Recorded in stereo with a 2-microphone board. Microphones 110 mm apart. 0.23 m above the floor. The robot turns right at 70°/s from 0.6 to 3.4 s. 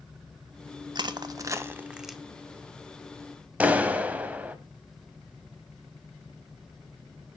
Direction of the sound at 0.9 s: 40° right (ahead or behind).